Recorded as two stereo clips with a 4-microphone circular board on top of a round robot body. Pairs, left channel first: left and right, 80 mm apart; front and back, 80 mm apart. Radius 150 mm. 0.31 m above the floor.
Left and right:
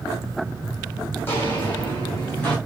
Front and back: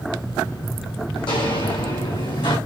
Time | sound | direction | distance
1.1 | footsteps | 30° left | 1.4 m